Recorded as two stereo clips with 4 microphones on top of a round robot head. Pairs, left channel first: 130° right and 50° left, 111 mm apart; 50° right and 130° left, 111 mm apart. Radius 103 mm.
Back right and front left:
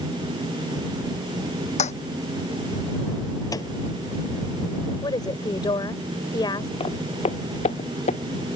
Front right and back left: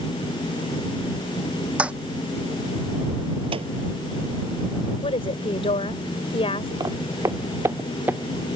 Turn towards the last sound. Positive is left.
turn(degrees=-155)